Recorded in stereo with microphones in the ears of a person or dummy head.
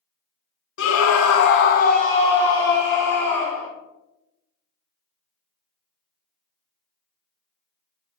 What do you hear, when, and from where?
0.8 s a scream: 70° left (ahead or behind), 0.6 m; by 3.7 s 10° left (ahead or behind), 1.6 m